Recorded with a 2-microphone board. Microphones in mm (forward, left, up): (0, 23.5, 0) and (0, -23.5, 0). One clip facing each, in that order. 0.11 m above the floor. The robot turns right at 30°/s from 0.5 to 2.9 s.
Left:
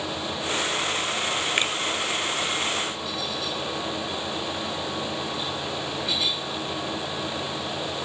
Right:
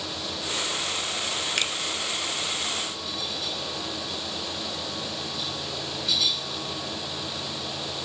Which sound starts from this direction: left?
A finger snap, at 1.6 s.